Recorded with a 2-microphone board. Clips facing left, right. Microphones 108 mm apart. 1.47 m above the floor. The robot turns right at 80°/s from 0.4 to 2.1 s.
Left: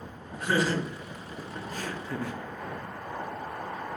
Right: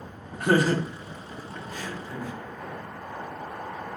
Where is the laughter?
60° right (ahead or behind), 0.5 m; by 2.4 s 65° left (ahead or behind), 0.5 m.